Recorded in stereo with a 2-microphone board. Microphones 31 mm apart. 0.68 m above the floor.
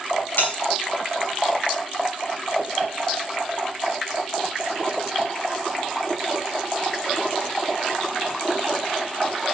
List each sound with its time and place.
0.4 s a bell: 65° left (ahead or behind), 5 m